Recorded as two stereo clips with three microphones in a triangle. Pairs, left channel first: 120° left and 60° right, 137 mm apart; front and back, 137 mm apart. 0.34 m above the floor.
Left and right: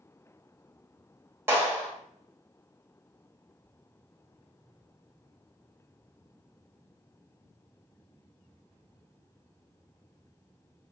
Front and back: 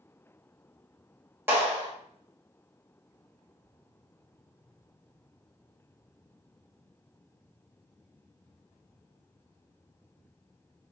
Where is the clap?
120° right, 1.3 m.